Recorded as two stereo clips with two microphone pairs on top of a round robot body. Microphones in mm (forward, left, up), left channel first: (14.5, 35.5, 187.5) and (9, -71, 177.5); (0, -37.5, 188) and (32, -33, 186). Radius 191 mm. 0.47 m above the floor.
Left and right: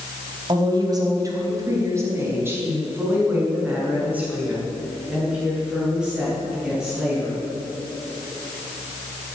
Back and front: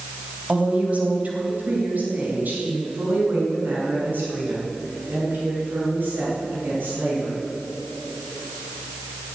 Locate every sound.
0.5 s a woman speaking: 45° right, 3.5 m; by 7.5 s 10° right, 10.5 m